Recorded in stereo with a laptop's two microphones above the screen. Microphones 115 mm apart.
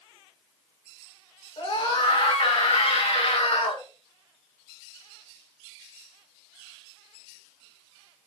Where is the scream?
65° left (ahead or behind), 2.5 m; by 3.8 s 70° left (ahead or behind), 1.3 m.